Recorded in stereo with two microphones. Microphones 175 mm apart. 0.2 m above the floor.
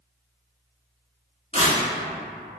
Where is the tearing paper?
35° left (ahead or behind), 0.9 m.